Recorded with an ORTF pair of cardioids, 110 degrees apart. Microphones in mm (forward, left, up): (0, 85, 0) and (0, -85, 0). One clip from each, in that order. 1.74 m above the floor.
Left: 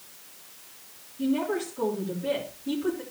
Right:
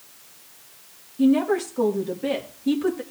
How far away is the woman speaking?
About 3 m.